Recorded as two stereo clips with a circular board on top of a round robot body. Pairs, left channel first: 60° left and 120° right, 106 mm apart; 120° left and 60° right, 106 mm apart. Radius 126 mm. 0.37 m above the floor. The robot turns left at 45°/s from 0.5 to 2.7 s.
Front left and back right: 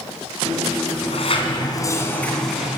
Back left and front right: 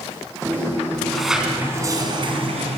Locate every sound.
0.9 s a sliding door: 40° left, 4 m; by 2.8 s 40° right, 4 m